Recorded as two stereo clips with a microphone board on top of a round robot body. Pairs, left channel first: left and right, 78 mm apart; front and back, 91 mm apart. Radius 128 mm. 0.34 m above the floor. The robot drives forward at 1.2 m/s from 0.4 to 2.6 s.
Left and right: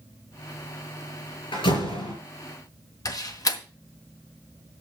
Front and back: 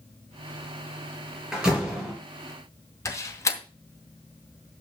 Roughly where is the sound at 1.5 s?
Left.